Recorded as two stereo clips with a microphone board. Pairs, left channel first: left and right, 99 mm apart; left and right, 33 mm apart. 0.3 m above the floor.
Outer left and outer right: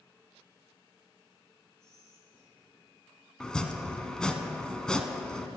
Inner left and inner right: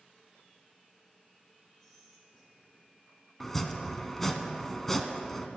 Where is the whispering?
15° left (ahead or behind), 4 m.